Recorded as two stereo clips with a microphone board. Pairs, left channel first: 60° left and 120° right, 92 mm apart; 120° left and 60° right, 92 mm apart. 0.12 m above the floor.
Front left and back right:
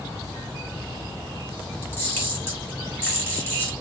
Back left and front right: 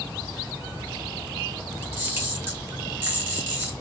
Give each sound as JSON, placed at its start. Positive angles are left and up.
{"t": 1.8, "sound": "a camera shutter", "azimuth_deg": 0, "distance_m": 2.0}